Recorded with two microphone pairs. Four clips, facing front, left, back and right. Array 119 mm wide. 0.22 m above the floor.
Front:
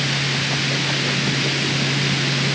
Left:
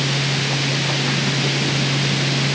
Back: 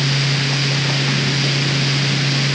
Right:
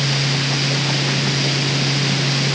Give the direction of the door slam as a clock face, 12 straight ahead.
I don't hear a door slam.